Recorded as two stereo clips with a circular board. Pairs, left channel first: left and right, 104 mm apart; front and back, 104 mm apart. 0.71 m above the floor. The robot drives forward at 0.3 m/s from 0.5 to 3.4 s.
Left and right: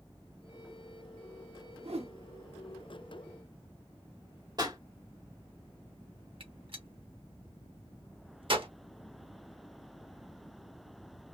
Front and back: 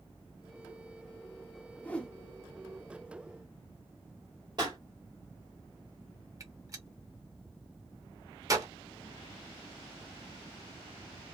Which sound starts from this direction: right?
A whoosh, at 1.8 s.